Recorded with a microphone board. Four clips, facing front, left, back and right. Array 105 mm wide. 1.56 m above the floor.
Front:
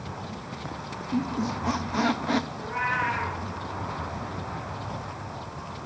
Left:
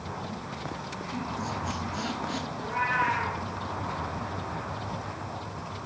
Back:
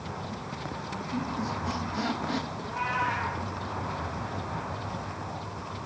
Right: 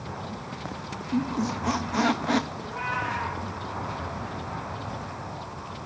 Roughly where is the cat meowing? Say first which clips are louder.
Left 3 dB, front 2 dB; ahead left.